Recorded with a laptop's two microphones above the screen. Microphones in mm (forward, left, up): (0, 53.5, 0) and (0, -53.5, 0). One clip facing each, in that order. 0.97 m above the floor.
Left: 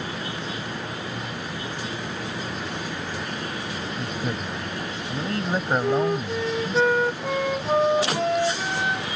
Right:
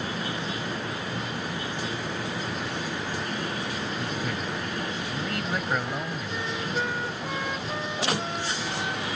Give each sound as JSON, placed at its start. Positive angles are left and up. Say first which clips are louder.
{"t": 4.0, "sound": "a man speaking", "louder": "left 2 dB", "side_deg": 30}
{"t": 5.8, "sound": "a flute", "louder": "left 10 dB", "side_deg": 75}